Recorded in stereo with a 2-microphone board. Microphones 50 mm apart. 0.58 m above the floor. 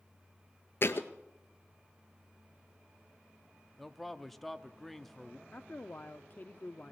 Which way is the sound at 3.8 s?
5° left (ahead or behind).